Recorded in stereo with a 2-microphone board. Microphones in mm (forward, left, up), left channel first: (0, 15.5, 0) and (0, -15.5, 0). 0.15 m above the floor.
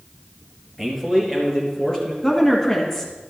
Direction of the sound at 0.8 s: Centre (ahead or behind).